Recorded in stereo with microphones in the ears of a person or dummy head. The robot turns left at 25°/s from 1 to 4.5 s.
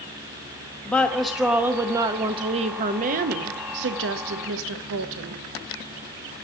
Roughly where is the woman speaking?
Ahead.